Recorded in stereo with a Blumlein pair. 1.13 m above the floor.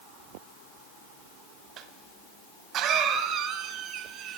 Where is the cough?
30° right, 0.8 m.